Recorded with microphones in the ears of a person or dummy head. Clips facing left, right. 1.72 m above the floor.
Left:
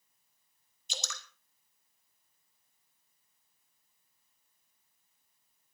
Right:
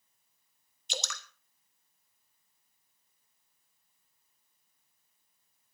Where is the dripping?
50° right (ahead or behind), 1.1 m.